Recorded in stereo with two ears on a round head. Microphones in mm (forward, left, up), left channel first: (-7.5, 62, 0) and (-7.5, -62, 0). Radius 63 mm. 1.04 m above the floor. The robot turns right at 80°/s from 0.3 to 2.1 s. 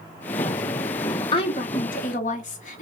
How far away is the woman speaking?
About 0.9 m.